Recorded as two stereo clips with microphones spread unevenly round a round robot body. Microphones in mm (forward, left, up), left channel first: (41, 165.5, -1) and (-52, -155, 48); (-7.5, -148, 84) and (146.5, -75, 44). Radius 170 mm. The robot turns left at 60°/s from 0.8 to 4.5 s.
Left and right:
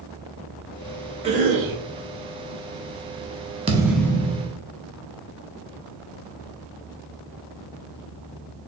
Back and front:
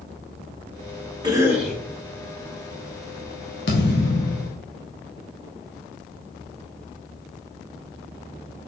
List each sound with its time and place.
1.2 s a cough: 30° right, 2 m; by 1.8 s 65° right, 2 m
3.7 s a thud: 175° right, 0.7 m; by 4.6 s 135° left, 0.7 m